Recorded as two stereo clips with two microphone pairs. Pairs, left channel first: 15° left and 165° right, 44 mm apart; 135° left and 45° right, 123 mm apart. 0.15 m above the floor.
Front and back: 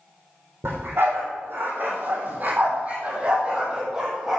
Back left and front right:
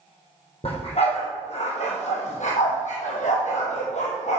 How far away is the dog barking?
About 2.5 m.